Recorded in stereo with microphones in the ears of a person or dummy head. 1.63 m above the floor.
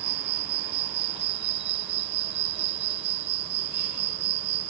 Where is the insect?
45° right (ahead or behind).